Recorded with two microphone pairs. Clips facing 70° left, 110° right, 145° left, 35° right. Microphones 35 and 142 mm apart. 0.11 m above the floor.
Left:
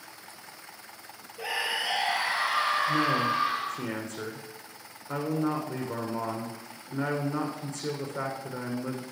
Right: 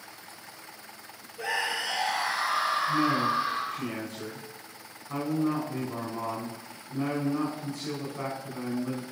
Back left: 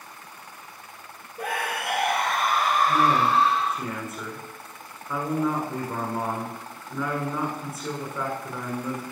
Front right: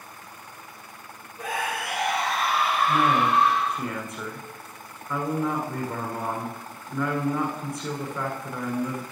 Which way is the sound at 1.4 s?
145° left.